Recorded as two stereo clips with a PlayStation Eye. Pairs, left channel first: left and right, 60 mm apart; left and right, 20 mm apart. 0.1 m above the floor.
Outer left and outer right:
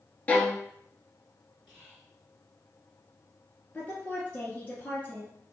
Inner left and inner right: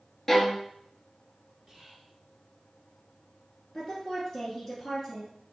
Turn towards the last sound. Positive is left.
turn(degrees=25)  # may be behind; listen again after turning